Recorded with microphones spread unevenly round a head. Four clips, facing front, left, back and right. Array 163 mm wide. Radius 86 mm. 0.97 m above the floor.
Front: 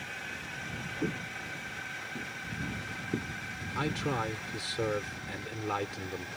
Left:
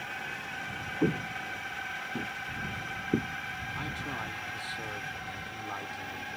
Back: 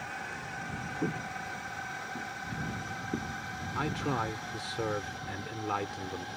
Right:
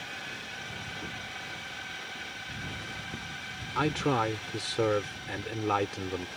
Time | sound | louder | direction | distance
0.0 | a drone | left 3 dB, back 3 dB | 155° left | ?
1.0 | footsteps | left 11 dB, back 1 dB | 95° left | ?
3.8 | a man speaking | right 14 dB, even | 85° right | ?